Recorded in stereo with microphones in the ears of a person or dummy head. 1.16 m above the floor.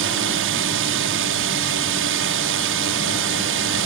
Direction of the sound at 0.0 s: 60° right (ahead or behind).